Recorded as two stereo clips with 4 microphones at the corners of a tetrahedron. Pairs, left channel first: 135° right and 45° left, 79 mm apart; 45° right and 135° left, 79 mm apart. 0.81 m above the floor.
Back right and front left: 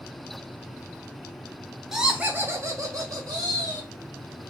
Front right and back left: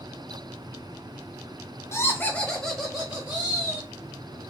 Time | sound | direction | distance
1.9 | laughter | 40° right | 0.7 m